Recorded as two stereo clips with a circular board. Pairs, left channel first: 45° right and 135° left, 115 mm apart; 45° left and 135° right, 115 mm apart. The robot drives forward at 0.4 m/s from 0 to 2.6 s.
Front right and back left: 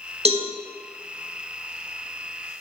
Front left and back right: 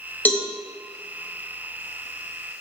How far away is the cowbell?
About 1.0 m.